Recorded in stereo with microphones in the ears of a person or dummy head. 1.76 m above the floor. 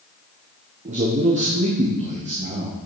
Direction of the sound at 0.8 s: 40° right (ahead or behind).